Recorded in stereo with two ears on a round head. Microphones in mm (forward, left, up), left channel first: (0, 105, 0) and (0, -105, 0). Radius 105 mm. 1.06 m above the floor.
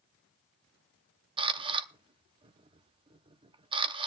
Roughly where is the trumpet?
No trumpet in this recording.